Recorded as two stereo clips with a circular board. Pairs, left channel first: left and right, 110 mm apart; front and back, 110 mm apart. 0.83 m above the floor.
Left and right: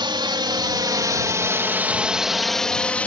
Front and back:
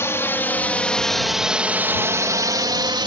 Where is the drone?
60° right; by 3.1 s 160° left.